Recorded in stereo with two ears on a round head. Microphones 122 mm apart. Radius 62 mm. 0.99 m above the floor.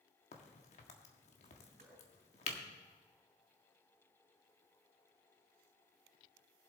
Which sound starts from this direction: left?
A crack, at 0.3 s.